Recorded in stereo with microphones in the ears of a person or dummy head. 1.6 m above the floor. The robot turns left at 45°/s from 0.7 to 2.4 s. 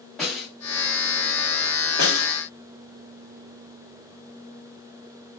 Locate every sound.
0.2 s a snare drum: centre (ahead or behind), 2 m
2.0 s a snare drum: 50° left (ahead or behind), 1.9 m; by 2.3 s 65° left (ahead or behind), 1.9 m